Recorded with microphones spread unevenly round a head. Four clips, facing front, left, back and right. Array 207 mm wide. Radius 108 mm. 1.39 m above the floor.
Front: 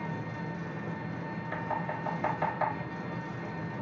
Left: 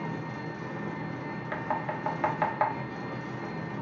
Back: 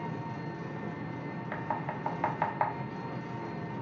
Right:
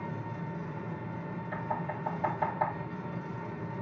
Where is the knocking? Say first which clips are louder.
Left 3 dB, front 1 dB; 110° left, 1.6 m.